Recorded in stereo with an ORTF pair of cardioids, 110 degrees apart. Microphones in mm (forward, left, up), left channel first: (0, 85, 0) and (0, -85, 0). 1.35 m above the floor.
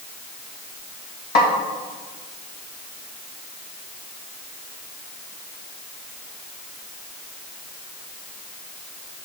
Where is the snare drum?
65° left, 2.5 m.